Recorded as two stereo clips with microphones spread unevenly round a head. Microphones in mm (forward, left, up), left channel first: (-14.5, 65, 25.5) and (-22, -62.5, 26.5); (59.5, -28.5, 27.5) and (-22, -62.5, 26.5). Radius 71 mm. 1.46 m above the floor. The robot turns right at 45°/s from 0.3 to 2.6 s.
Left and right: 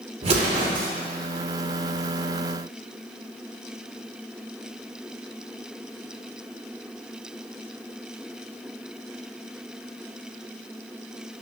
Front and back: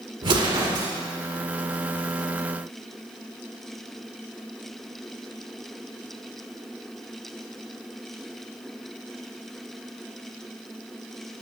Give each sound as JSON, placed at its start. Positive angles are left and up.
{"t": 0.2, "sound": "an explosion", "azimuth_deg": -135, "distance_m": 2.5}